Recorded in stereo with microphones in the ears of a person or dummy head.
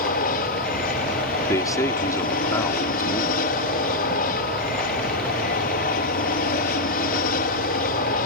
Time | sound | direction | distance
0.0 | an aircraft | 55° left (ahead or behind) | ?
1.5 | a man speaking | 15° left (ahead or behind) | ?